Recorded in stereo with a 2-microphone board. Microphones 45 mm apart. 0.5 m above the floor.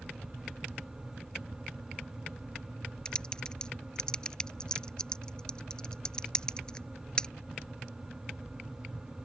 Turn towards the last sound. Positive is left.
turn(degrees=15)  # may be behind; listen again after turning